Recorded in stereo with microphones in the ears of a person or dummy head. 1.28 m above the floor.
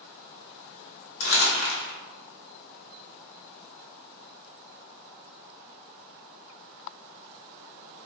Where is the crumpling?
70° left (ahead or behind), 1.1 m.